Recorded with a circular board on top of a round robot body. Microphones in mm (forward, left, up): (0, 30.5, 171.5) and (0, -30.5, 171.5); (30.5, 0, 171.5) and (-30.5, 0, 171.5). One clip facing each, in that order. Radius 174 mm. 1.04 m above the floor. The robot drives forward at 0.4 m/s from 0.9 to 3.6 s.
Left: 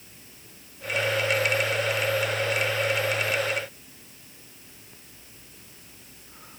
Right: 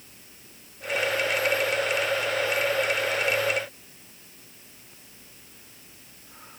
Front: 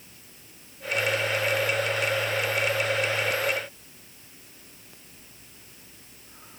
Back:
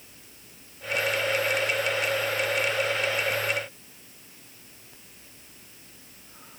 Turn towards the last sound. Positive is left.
No sound to turn to.